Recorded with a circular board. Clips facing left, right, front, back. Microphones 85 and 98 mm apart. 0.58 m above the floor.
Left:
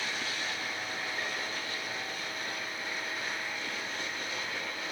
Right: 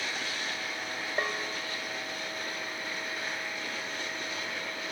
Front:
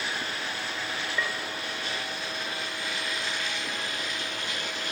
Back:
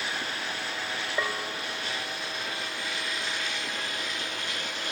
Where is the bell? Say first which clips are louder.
Right 4 dB, back 3 dB; 120° right, 0.5 m.